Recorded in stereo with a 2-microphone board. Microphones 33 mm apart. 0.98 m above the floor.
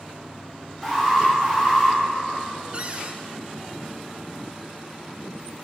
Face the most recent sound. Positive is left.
turn(degrees=-35)  # may be behind; listen again after turning